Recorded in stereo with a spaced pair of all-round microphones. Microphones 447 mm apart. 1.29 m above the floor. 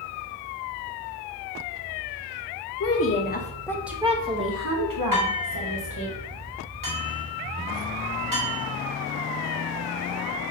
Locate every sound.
2.8 s a woman speaking: 35° left (ahead or behind), 0.9 m; by 6.1 s 70° right (ahead or behind), 1.2 m
5.1 s dishes clattering: 45° right (ahead or behind), 1.7 m